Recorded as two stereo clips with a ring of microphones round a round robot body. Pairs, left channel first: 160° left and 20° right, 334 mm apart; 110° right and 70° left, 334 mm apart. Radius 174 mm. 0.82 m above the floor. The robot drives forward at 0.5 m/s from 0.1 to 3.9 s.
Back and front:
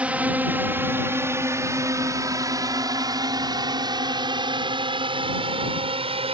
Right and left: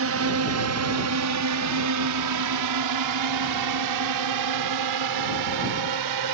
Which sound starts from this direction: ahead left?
A drone, at 0.0 s.